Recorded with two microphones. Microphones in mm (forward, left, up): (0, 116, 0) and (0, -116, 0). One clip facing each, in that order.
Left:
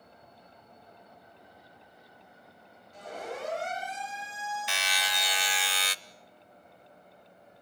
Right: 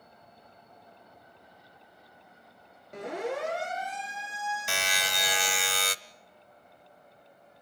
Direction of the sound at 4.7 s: 50° right (ahead or behind).